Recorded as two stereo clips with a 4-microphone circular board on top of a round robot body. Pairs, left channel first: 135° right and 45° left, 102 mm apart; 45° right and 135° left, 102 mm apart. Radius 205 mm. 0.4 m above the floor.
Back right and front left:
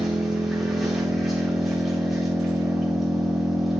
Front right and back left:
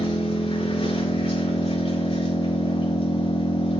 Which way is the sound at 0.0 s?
40° right.